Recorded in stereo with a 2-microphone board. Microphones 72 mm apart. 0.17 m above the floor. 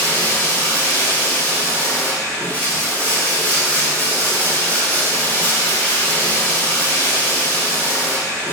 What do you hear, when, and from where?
0.0 s running water: 25° left (ahead or behind), 1.1 m